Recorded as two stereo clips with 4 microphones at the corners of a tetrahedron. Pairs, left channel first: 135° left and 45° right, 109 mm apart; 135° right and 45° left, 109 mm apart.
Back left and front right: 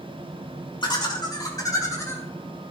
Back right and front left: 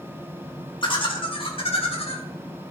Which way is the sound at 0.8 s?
Straight behind.